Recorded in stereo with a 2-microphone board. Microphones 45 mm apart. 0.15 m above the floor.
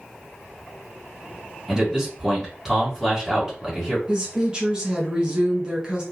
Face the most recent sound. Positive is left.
turn(degrees=-20)  # may be behind; listen again after turning